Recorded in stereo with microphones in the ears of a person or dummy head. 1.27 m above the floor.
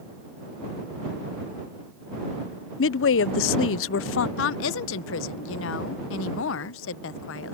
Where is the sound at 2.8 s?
65° left (ahead or behind).